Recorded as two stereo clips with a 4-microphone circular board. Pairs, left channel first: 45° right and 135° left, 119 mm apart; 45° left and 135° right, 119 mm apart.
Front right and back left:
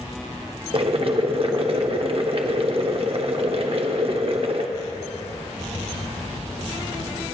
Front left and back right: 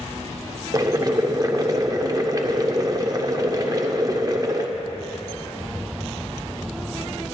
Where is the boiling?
170° left, 0.8 m.